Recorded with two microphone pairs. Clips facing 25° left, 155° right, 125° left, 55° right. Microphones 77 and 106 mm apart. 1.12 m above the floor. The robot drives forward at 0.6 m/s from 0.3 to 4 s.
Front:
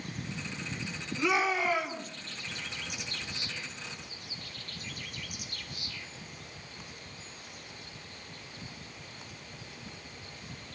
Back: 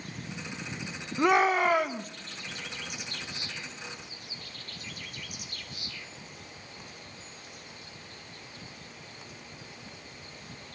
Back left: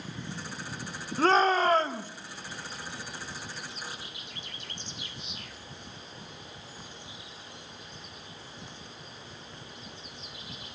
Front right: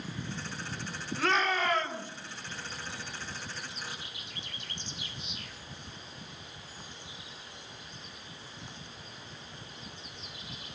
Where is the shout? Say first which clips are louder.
Back 6 dB, back left 6 dB; 175° left, 1.3 m.